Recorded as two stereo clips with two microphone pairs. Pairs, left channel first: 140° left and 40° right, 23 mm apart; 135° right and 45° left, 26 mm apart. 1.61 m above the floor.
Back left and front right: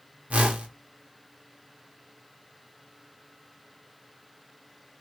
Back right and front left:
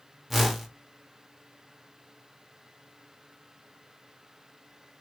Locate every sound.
0.3 s a whoosh: 40° right, 0.8 m